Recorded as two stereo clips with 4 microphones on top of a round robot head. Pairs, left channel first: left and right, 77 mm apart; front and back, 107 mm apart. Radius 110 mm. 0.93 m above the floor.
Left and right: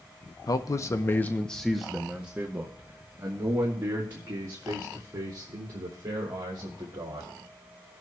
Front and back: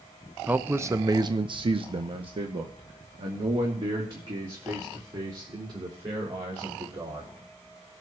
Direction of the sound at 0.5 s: 105° left.